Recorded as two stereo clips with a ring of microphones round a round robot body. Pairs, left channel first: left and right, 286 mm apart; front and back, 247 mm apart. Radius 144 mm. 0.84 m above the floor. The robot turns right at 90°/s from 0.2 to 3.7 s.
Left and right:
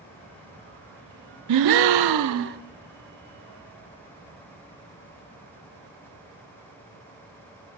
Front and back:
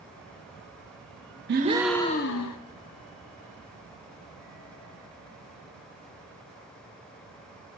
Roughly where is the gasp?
Behind right.